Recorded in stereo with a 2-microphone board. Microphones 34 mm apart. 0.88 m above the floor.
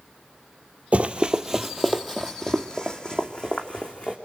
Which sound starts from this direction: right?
Running footsteps, at 0.9 s.